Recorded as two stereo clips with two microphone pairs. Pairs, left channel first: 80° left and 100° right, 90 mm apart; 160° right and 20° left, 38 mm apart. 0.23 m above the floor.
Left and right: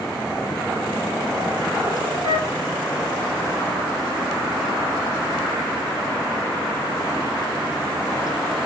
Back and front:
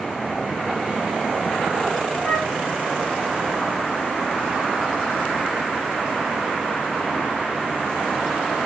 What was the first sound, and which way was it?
A flute, 60° right.